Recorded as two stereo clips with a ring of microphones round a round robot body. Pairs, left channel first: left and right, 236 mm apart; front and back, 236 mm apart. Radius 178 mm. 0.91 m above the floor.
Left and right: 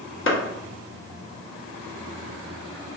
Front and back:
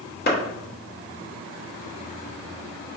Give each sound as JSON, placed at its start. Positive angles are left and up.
{"t": 0.3, "sound": "a clap", "azimuth_deg": 50, "distance_m": 1.0}